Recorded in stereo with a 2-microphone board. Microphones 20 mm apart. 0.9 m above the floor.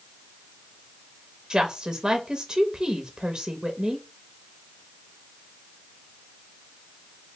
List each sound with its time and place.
1.5 s a woman speaking: 35° right (ahead or behind), 0.9 m